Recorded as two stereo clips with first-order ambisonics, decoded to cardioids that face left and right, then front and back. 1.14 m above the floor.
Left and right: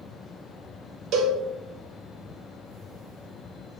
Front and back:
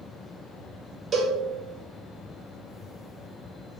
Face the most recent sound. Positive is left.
turn(degrees=-120)